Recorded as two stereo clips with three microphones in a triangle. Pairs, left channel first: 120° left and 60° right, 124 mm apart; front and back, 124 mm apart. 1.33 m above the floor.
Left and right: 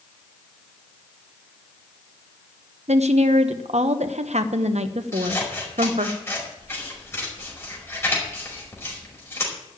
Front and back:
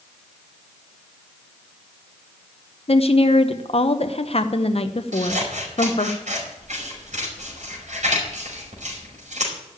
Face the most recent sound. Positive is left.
turn(degrees=-170)